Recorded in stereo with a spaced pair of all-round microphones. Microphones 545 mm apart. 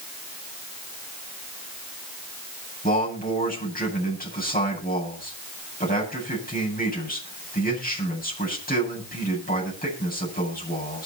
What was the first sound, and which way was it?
A man speaking, 15° left (ahead or behind).